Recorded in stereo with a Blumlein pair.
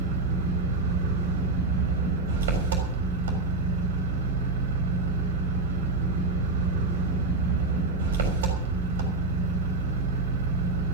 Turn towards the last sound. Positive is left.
turn(degrees=-60)